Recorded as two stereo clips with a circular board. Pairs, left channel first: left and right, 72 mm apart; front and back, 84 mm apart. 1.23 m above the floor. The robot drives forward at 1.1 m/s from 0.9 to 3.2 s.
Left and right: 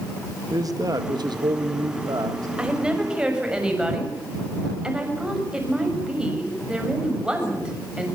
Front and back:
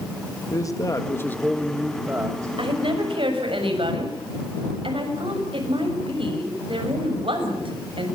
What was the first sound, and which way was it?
A man speaking, 50° right.